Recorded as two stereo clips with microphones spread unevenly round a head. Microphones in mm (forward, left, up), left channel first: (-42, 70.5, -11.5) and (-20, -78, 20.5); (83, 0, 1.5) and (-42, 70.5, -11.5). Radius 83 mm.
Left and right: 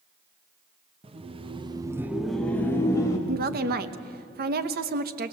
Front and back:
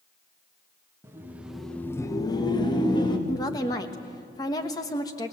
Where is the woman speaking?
100° right, 1.2 m.